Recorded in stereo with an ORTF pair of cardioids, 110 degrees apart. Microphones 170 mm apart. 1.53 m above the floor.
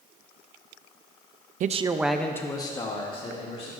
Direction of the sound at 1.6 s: 50° right.